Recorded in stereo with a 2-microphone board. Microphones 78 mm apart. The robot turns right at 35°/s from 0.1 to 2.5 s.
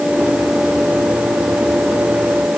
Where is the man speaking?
I don't hear a man speaking.